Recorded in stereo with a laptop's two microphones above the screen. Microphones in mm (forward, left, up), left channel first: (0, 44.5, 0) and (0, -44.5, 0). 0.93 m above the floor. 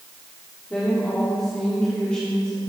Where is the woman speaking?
15° left (ahead or behind), 1.9 m.